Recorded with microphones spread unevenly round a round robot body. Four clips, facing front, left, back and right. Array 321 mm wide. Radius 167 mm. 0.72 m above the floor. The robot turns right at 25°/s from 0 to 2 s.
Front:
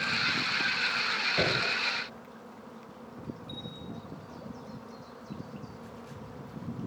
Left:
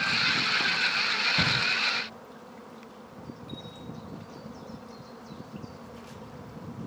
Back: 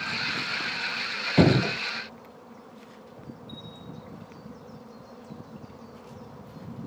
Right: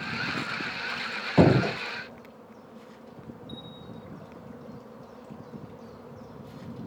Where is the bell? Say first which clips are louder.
Left 1 dB, front 1 dB; 40° right.